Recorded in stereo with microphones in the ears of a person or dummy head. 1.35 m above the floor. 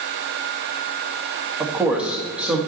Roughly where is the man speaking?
Centre.